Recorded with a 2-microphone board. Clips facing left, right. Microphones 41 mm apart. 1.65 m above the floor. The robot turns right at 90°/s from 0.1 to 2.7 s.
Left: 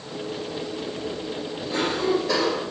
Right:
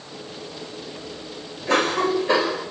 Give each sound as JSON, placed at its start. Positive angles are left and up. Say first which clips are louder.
{"t": 1.7, "sound": "a cough", "louder": "right 4 dB", "azimuth_deg": -90, "distance_m": 6.5}